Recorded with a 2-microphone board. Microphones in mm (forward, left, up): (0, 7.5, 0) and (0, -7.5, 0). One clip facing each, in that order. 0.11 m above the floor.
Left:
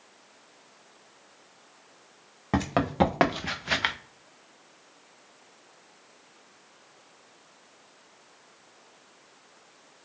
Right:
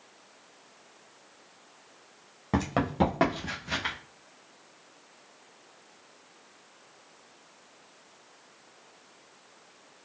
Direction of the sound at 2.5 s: 20° left (ahead or behind).